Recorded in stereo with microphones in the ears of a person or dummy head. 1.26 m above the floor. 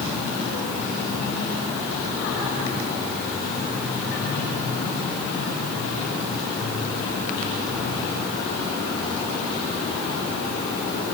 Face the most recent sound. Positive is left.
No sound to turn to.